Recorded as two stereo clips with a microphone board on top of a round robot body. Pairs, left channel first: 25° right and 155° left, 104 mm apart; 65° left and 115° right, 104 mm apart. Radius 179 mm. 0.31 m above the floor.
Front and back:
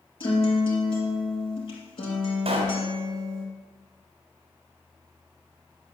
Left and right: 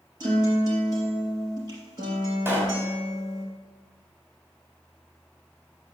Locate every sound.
0.2 s a guitar: 65° right, 3.5 m
2.5 s a pop: straight behind, 2 m